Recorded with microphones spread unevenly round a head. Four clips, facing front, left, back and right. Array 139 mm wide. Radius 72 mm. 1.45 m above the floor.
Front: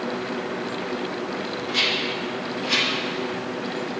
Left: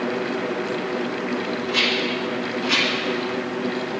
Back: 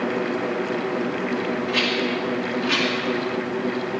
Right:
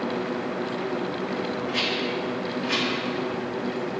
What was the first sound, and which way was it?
A rattle, 150° left.